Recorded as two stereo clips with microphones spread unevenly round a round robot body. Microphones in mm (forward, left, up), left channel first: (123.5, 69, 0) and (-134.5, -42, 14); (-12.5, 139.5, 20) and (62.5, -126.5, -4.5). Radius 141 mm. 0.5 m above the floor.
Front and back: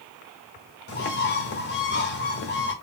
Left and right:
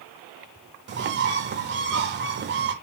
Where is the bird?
30° right, 0.9 m.